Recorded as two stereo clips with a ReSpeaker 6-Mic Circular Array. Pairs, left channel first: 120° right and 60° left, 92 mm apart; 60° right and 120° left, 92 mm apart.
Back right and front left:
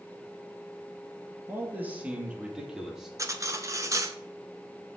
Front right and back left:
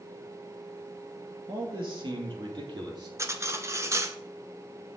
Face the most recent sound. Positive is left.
turn(degrees=85)